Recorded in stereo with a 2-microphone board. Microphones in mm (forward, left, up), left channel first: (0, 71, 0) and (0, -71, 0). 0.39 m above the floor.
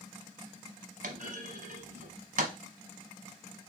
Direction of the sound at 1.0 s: 70° right (ahead or behind).